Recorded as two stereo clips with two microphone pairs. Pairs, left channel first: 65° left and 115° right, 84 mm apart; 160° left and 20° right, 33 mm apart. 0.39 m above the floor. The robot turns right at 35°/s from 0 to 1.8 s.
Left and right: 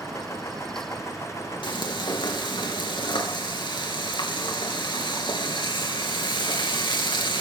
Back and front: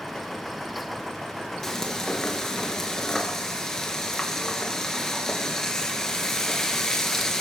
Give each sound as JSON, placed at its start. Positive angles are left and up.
{"t": 1.6, "sound": "frying", "azimuth_deg": 80, "distance_m": 3.5}